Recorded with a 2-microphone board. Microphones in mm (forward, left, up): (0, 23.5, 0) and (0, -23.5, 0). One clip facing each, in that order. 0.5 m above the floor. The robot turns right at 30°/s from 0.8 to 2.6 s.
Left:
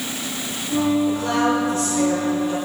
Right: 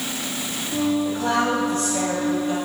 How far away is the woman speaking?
About 3 m.